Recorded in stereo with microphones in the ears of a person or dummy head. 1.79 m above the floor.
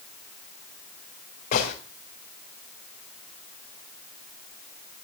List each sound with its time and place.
1.5 s a gunshot: 50° left (ahead or behind), 3.5 m